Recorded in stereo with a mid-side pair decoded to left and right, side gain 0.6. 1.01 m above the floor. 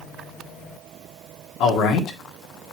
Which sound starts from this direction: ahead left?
A man speaking, at 1.6 s.